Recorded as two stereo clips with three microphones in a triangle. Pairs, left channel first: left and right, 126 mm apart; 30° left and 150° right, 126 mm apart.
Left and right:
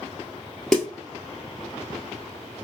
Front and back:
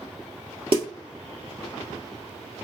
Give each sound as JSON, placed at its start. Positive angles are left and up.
{"t": 0.7, "sound": "a snare drum", "azimuth_deg": 175, "distance_m": 1.3}